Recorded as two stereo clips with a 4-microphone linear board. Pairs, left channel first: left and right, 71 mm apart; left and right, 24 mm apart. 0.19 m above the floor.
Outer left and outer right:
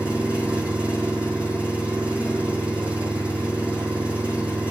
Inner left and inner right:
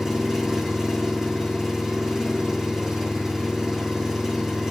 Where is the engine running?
20° right (ahead or behind), 3.5 m.